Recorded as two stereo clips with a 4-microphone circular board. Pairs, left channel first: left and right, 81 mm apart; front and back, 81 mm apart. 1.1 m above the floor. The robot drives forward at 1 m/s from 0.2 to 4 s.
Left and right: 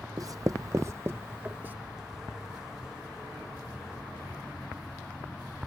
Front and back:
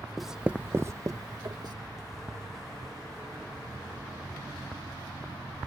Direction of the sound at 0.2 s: 90° right.